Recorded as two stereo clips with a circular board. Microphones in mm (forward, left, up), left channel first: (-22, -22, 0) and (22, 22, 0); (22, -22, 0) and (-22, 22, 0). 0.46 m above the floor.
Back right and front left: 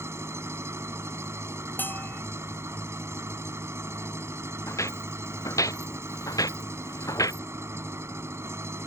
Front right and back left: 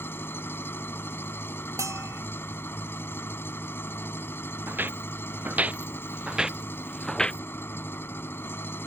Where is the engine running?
5° left.